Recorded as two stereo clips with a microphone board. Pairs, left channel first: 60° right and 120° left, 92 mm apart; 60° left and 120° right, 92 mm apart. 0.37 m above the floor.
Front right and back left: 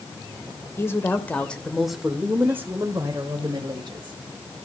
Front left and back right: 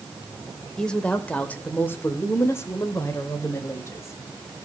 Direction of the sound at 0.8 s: 20° right.